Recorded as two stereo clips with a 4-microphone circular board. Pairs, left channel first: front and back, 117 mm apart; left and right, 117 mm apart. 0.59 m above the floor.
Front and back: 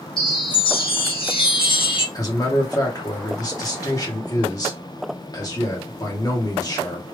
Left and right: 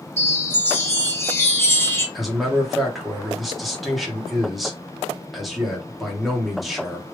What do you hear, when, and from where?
0.2 s a chime: 25° left, 1.2 m
2.1 s a man speaking: straight ahead, 1.3 m